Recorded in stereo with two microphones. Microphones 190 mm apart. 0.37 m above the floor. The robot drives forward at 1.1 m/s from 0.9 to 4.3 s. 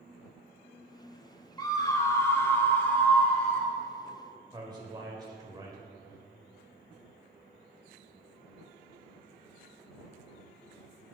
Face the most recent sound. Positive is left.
turn(degrees=-20)  # may be behind; listen again after turning